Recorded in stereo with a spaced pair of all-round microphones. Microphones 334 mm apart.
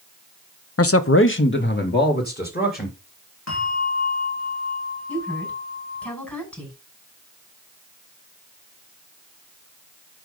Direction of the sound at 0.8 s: 45° left (ahead or behind).